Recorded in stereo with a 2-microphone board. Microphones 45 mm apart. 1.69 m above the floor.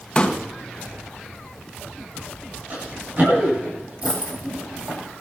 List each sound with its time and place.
0.1 s a pop: 25° left (ahead or behind), 1.4 m
2.7 s running footsteps: 40° right (ahead or behind), 9.5 m; by 5.0 s 35° right (ahead or behind), 11.5 m
4.0 s a dropped coin: 35° right (ahead or behind), 5.5 m